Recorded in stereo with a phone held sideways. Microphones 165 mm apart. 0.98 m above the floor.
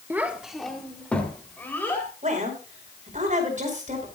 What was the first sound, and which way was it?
A child speaking, 15° right (ahead or behind).